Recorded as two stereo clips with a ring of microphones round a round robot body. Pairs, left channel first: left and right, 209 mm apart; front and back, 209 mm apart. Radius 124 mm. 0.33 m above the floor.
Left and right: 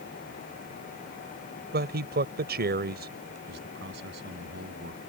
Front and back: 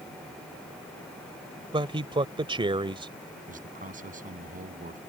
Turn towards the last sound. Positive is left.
turn(degrees=-130)